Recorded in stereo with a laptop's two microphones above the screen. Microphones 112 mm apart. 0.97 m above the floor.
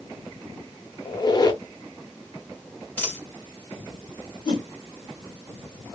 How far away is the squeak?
About 0.7 m.